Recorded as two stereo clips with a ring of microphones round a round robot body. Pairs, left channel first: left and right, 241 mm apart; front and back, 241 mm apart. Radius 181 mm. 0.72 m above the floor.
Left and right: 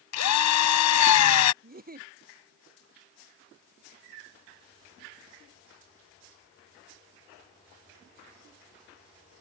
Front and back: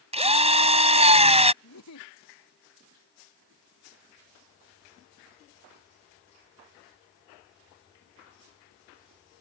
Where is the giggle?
35° right.